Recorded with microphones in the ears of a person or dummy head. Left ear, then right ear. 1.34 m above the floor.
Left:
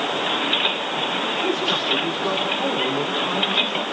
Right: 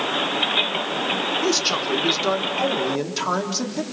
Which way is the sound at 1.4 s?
80° right.